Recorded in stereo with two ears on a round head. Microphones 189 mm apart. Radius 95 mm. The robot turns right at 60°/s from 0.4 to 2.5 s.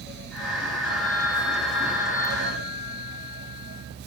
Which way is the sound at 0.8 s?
50° left.